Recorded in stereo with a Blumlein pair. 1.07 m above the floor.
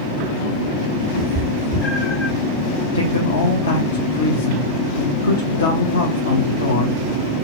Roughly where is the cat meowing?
Ahead left.